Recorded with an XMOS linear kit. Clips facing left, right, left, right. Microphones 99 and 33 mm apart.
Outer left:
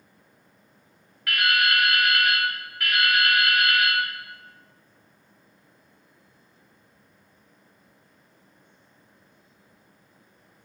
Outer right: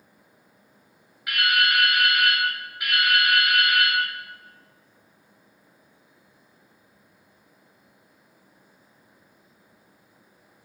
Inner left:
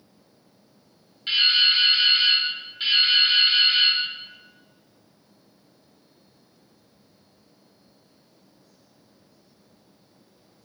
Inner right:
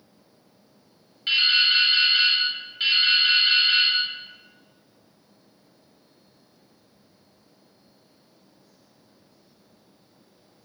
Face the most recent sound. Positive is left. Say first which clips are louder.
# even, even
turn(degrees=-10)  # may be behind; listen again after turning